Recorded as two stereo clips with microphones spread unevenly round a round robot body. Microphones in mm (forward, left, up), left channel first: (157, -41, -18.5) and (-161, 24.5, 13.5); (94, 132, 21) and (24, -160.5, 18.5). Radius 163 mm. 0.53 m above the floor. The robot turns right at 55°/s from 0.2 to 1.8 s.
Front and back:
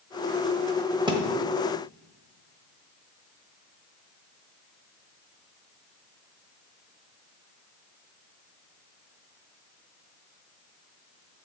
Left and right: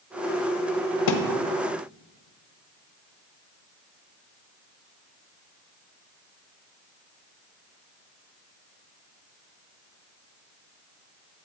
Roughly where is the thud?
Left.